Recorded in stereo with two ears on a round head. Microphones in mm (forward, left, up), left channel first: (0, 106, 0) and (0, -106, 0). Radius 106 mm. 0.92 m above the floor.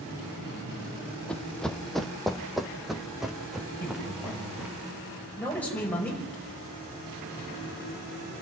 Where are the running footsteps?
5° left (ahead or behind), 1.1 m; by 4.8 s 5° right (ahead or behind), 3 m.